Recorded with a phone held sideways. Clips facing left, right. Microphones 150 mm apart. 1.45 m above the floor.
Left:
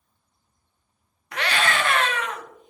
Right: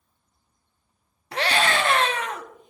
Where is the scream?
30° right (ahead or behind), 0.8 m.